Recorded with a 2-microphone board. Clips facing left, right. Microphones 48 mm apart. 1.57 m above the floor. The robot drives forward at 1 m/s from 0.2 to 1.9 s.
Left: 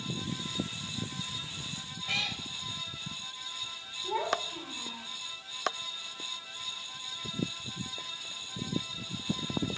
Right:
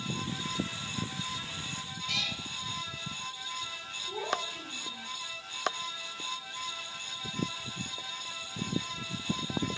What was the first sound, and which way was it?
A cat meowing, 25° left (ahead or behind).